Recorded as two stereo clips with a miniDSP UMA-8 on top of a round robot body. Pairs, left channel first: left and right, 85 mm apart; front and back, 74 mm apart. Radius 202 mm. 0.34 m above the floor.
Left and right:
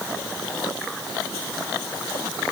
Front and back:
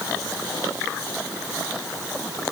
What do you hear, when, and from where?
Only background noise.